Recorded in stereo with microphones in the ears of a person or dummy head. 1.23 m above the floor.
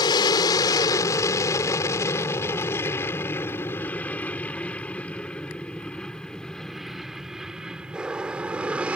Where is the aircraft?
25° left (ahead or behind); by 9.0 s 5° right (ahead or behind).